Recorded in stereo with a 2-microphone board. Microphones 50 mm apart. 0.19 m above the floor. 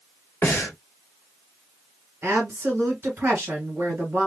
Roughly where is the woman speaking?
Right.